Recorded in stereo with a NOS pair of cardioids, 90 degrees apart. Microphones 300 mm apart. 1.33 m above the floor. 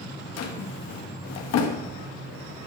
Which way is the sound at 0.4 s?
70° left.